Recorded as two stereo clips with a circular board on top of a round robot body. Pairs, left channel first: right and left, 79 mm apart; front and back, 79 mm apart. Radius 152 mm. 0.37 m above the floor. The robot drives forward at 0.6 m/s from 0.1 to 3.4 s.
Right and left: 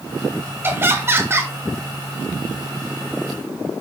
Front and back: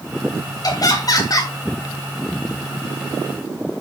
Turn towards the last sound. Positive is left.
turn(degrees=55)